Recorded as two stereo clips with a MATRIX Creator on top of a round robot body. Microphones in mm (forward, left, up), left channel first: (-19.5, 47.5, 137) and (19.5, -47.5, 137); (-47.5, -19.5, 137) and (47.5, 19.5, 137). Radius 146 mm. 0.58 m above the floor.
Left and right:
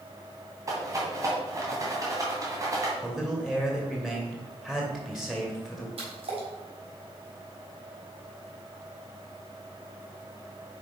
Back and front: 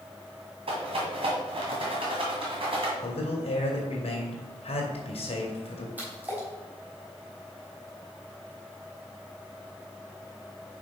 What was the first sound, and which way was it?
A rattle, 10° right.